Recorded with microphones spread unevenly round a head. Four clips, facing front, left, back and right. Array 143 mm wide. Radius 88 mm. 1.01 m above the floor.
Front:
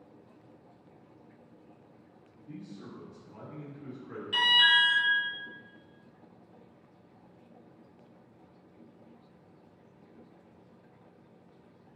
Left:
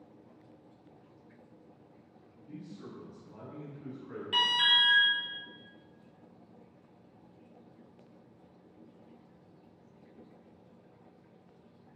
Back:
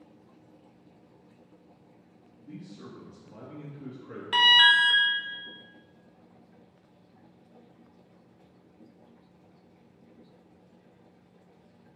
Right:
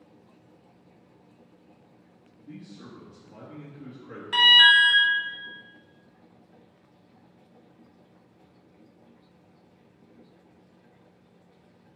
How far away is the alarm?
About 0.9 m.